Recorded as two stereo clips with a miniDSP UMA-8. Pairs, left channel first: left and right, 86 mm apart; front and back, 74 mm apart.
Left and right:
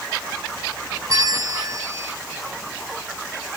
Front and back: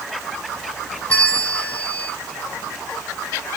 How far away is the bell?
About 1.3 m.